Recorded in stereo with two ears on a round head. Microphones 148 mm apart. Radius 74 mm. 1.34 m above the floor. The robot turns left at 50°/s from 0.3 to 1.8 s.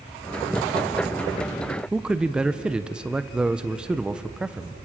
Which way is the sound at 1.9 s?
5° right (ahead or behind).